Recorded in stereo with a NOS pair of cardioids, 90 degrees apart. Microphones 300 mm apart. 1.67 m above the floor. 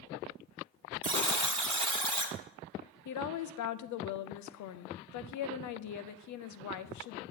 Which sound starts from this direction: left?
A woman speaking, at 3.0 s.